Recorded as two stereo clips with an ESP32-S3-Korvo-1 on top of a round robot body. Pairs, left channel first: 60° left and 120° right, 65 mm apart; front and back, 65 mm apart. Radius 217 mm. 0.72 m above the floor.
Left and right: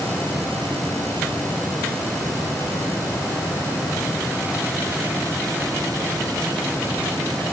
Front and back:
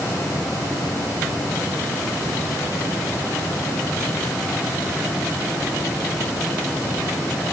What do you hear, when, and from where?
Only background noise.